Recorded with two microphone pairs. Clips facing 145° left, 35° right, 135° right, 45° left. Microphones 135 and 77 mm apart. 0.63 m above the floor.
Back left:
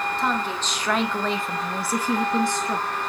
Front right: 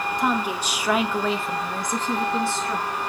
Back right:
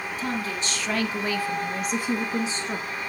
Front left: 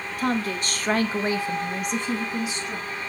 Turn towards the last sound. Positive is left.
turn(degrees=-155)